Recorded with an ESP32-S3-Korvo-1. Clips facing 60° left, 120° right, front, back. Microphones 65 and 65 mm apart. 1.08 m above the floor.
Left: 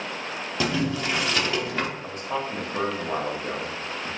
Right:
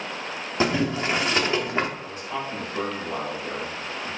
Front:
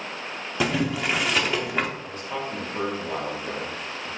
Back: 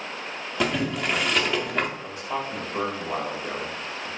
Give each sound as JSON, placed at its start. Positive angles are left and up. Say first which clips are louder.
{"t": 0.6, "sound": "boiling", "louder": "right 3 dB, front 1 dB", "azimuth_deg": -85, "distance_m": 0.7}
{"t": 2.0, "sound": "a man speaking", "louder": "left 2 dB, back 1 dB", "azimuth_deg": 100, "distance_m": 1.7}